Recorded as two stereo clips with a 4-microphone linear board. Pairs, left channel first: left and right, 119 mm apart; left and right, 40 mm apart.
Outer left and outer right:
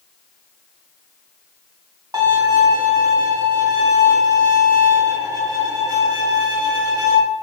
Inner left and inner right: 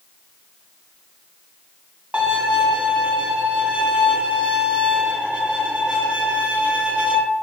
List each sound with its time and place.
2.1 s a violin: 35° right (ahead or behind), 0.6 m